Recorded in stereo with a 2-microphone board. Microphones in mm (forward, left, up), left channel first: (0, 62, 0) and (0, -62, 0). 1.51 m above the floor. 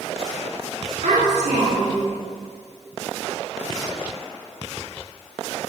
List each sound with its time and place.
1.0 s a child speaking: 75° right (ahead or behind), 2 m